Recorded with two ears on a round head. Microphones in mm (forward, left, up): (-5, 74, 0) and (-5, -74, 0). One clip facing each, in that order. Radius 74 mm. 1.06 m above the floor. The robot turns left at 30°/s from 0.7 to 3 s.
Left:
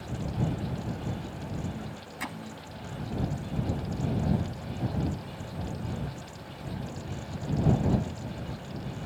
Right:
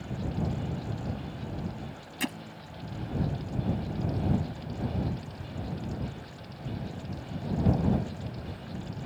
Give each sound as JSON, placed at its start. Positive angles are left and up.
{"t": 2.2, "sound": "hammering", "side_deg": -35}